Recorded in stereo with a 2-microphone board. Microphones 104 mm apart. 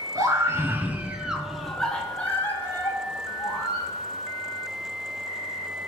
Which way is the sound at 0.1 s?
30° right (ahead or behind).